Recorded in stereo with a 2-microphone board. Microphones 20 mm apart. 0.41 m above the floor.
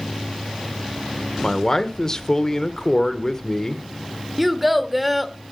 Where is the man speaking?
30° left (ahead or behind), 1.0 m.